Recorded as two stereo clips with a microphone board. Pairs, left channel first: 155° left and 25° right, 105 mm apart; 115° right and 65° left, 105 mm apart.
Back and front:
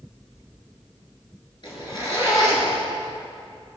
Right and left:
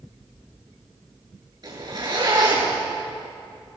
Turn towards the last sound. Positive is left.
turn(degrees=115)